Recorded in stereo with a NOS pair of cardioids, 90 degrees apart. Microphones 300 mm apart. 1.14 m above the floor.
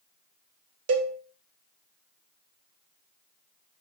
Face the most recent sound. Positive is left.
turn(degrees=-55)